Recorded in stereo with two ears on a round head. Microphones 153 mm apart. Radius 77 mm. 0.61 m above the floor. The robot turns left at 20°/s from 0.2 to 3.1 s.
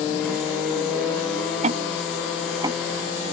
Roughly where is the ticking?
Right.